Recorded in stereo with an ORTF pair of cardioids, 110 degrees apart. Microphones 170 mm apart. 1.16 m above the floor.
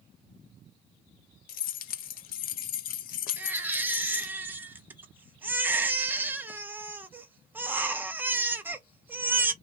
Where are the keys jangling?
60° left, 0.6 m.